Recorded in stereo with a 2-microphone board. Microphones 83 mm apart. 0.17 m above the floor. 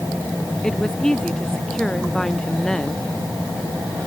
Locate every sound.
0.6 s a woman speaking: 10° left (ahead or behind); by 3.1 s 5° left (ahead or behind)